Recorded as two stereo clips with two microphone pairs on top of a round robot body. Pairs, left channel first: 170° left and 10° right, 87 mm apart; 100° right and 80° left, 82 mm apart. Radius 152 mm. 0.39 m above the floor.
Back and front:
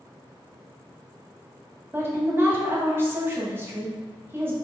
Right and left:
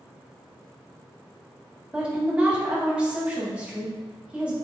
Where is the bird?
No bird in this recording.